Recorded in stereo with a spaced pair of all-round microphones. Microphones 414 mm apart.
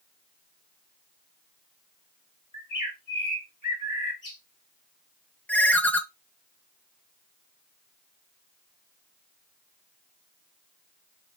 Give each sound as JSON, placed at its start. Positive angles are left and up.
{"t": 2.5, "sound": "a bird", "side_deg": 45, "distance_m": 1.7}
{"t": 5.5, "sound": "a ringtone", "side_deg": 5, "distance_m": 1.0}